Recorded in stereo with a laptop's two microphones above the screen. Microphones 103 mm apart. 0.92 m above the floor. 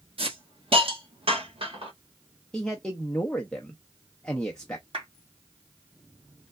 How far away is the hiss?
About 1.1 m.